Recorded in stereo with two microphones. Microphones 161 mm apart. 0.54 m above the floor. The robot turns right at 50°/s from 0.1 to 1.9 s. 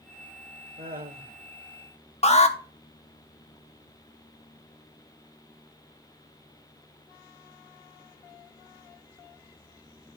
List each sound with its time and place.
0.8 s laughter: 100° right, 1.9 m; by 1.4 s 70° right, 1.9 m
2.2 s an alarm: 40° left (ahead or behind), 1.0 m